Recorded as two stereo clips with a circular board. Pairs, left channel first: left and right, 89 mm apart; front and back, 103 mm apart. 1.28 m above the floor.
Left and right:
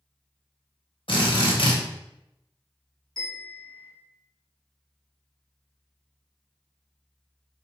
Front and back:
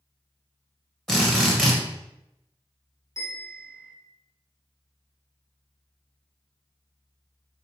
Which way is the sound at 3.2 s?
55° left.